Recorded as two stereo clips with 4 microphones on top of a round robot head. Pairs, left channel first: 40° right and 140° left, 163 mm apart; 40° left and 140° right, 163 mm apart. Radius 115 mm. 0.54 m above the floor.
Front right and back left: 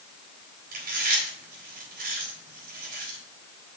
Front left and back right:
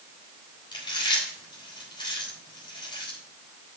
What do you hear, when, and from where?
0.7 s chewing: 100° left, 3.5 m